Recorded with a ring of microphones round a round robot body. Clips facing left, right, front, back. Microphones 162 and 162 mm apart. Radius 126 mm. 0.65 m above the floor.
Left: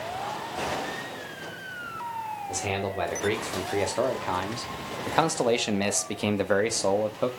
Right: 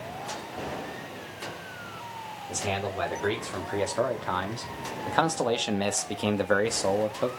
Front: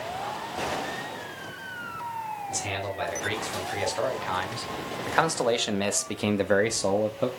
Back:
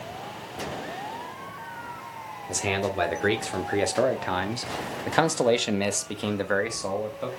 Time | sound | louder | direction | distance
2.5 | a man speaking | even, back 9 dB | 170° left | 3 m